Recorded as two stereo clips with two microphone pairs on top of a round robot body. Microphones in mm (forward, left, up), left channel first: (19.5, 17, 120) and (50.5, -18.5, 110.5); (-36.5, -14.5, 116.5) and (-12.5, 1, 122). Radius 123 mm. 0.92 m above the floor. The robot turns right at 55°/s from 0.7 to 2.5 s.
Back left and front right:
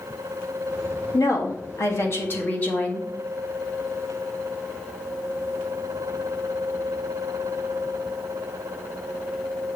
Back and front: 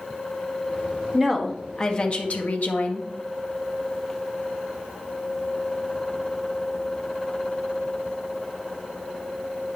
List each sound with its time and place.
1.1 s a woman speaking: 115° left, 1.4 m; by 3.1 s 170° right, 1.4 m